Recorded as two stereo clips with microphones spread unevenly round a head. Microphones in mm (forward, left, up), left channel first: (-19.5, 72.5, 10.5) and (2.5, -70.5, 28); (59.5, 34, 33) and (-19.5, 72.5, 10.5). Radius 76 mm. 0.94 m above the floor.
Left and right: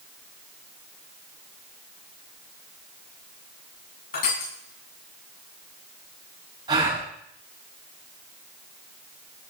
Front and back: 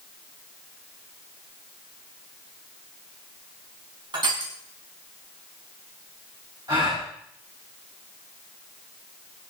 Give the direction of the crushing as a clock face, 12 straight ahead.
8 o'clock.